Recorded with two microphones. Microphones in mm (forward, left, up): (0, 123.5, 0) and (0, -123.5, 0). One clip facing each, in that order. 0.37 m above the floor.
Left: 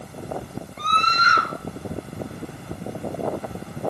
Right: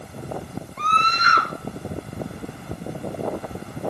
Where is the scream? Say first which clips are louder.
Even; 45° left (ahead or behind), 2.5 m.